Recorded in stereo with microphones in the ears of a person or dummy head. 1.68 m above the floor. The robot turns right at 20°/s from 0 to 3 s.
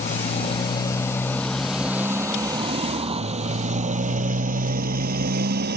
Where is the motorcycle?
40° left (ahead or behind); by 5.8 s 60° right (ahead or behind).